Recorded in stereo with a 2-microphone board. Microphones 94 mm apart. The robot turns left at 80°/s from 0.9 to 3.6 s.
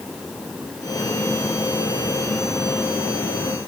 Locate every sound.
Only background noise.